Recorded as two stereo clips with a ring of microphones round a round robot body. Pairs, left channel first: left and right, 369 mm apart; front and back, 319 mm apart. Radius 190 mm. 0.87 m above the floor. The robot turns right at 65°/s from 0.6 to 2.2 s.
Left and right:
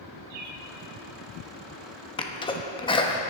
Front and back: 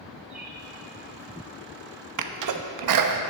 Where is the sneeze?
165° left, 1.1 m.